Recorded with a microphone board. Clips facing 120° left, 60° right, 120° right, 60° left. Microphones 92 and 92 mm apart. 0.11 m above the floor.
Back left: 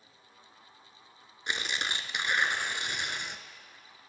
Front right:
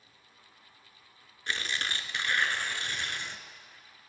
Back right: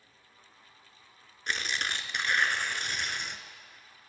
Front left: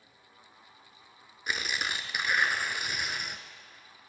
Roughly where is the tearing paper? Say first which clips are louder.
Even, even; behind left.